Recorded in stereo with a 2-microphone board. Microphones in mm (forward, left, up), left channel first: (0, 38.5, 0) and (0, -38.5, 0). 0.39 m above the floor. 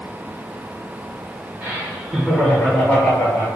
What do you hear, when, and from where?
1.6 s laughter: 25° right (ahead or behind), 1.0 m; by 3.5 s 30° left (ahead or behind), 1.3 m